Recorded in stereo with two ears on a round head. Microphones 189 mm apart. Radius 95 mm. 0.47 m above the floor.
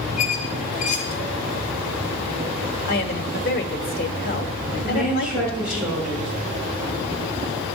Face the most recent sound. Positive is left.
turn(degrees=-5)  # may be behind; listen again after turning